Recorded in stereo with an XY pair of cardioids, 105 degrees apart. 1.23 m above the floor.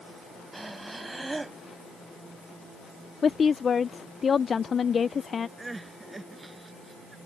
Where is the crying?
15° right.